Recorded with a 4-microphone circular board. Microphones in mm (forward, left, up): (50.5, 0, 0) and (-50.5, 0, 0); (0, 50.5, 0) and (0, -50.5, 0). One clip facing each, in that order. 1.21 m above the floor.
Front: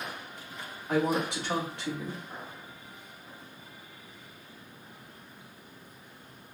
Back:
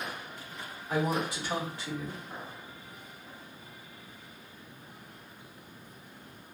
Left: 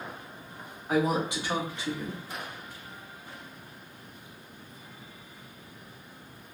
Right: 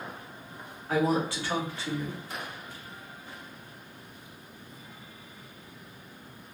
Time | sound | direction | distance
0.9 | a woman speaking | 20° left | 1.3 m